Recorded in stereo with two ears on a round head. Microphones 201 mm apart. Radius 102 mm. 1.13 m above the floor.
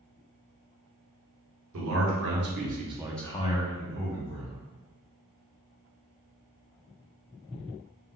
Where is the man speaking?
70° right (ahead or behind), 1.4 m; by 4.6 s 65° left (ahead or behind), 1.5 m.